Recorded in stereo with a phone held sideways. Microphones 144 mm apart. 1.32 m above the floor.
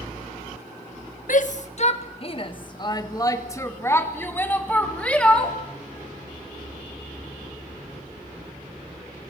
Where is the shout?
60° left (ahead or behind), 1.2 m; by 5.6 s 5° left (ahead or behind), 3 m.